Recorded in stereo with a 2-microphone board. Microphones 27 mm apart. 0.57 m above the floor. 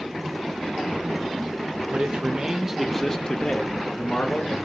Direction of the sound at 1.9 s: 40° right (ahead or behind).